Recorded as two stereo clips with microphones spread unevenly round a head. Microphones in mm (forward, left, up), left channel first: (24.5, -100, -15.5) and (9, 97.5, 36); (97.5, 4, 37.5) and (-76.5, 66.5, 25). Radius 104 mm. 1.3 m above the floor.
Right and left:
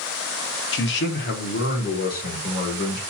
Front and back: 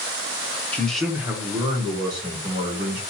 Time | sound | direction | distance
0.7 | a man speaking | 105° right | 0.7 m